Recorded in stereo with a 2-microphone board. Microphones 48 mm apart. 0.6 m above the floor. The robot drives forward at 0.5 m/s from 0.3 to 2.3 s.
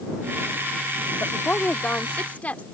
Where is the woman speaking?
40° left (ahead or behind); by 2.6 s 30° left (ahead or behind).